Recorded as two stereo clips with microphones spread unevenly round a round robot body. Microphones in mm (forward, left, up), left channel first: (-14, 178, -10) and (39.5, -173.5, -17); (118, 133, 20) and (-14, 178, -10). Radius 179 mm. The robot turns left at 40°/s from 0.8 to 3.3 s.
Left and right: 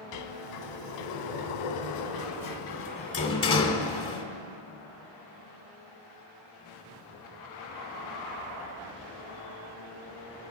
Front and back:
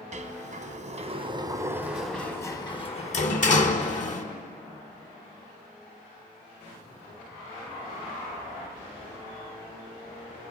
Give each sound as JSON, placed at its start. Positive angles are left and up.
{"t": 0.1, "sound": "a sliding door", "azimuth_deg": 120, "distance_m": 0.9}